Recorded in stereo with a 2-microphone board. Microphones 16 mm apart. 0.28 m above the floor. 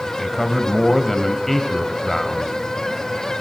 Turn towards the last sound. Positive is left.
turn(degrees=15)  # may be behind; listen again after turning